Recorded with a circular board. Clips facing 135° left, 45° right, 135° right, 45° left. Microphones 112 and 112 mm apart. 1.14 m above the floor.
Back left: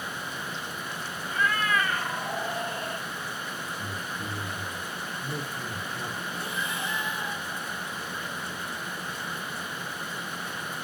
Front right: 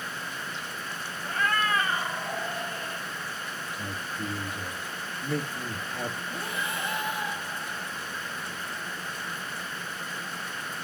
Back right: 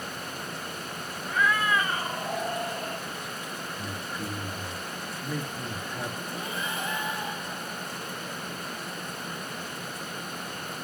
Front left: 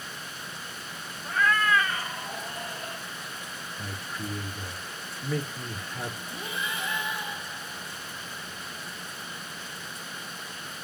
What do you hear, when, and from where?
1.2 s a cat meowing: 45° right, 1.4 m; by 3.0 s 170° right, 2.0 m
3.8 s a man speaking: 60° right, 2.0 m
6.3 s breathing: 85° right, 3.5 m